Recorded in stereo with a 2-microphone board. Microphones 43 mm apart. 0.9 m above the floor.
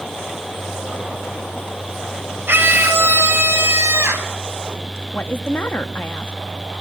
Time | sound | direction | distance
2.5 | a scream | 60° right (ahead or behind) | 3.5 m
5.1 | a woman speaking | 55° left (ahead or behind) | 1.3 m